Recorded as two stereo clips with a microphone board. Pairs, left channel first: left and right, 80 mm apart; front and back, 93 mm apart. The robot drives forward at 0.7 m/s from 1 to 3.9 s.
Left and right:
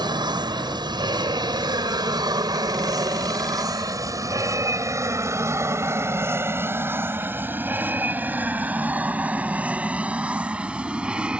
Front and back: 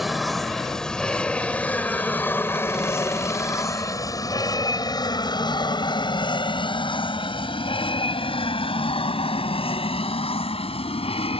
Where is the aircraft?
90° right; by 11.4 s 10° right.